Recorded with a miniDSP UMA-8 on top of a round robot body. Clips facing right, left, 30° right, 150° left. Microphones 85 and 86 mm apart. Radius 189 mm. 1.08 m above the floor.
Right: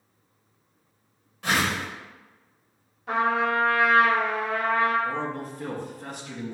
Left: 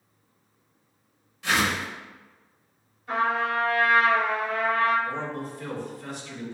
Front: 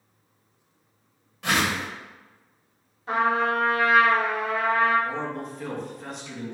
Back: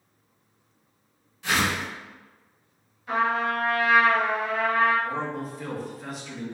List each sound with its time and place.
1.4 s a whoosh: 55° right, 1.1 m
3.1 s a trumpet: 85° right, 1.4 m
5.0 s a man speaking: 125° right, 1.4 m